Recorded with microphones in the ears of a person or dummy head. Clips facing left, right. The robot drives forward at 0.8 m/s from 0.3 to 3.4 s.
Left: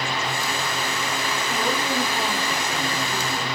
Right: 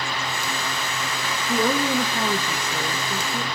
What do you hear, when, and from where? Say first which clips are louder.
1.5 s a woman speaking: right 6 dB; 75° right (ahead or behind), 1.3 m; by 3.4 s 45° right (ahead or behind), 1.7 m